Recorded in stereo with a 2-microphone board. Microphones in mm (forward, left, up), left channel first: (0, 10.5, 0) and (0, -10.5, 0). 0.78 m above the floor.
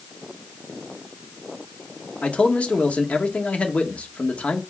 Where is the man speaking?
70° left (ahead or behind), 1.4 m.